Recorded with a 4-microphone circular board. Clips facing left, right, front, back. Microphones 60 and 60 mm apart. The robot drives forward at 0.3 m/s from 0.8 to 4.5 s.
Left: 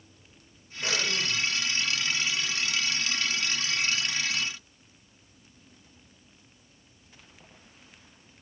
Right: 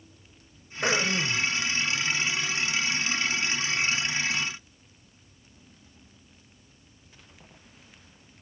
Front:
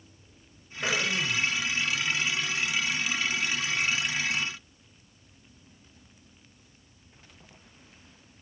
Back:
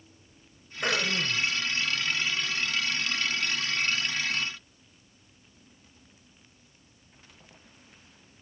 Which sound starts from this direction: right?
Throat clearing, at 0.8 s.